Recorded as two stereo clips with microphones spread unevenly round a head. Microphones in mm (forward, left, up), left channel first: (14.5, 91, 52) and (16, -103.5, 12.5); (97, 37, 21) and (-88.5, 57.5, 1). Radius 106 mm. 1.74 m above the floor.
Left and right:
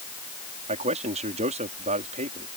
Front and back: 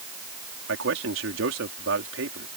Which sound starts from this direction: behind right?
A man speaking, at 0.7 s.